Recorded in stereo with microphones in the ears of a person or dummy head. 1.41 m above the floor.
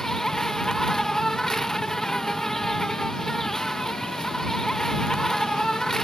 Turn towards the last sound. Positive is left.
turn(degrees=0)  # may be behind; listen again after turning